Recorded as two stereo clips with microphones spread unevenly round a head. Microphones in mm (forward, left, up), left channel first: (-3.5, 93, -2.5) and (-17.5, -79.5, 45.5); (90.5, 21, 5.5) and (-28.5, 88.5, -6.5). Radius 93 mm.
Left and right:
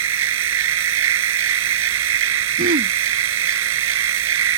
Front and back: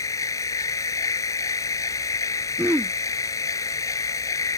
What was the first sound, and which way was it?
A machine running, 105° right.